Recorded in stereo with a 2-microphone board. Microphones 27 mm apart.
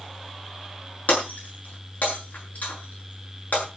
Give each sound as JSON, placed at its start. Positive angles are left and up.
{"t": 1.1, "sound": "breaking glass", "side_deg": 65, "distance_m": 8.0}